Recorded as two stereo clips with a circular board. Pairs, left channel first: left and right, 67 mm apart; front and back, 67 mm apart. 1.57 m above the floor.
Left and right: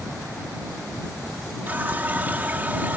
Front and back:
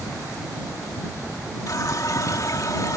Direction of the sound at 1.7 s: 30° right.